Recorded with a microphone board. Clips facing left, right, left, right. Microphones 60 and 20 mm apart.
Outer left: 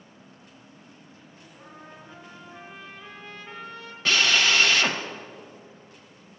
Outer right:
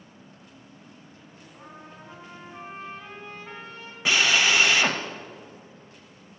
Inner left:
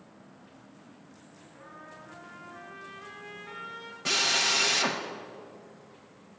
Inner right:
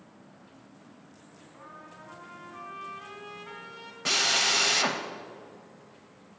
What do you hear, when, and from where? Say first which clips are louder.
1.5 s a trumpet: outer right 1 dB, even; 40° right (ahead or behind), 2.5 m
4.0 s a drill: outer right 1 dB, inner right 1 dB; 15° right (ahead or behind), 0.6 m